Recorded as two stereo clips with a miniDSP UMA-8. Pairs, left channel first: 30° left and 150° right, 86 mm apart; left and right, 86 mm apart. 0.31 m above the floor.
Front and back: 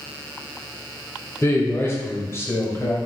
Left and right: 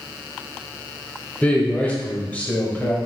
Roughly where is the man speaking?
Ahead left.